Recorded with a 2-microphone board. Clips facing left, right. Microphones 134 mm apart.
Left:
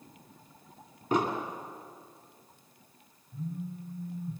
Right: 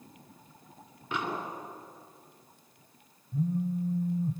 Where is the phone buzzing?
70° right (ahead or behind), 1.7 m.